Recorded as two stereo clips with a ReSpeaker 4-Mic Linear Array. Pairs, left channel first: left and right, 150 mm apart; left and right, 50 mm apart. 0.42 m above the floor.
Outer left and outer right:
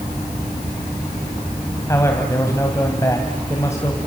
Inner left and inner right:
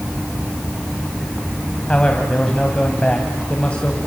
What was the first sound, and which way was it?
A man speaking, 20° left (ahead or behind).